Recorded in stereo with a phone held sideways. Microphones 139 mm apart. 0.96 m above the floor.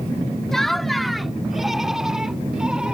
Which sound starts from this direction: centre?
Laughter, at 0.5 s.